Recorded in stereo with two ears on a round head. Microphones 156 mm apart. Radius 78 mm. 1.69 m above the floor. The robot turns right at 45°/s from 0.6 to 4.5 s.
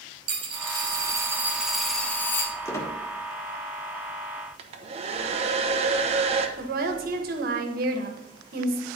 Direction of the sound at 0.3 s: 55° right.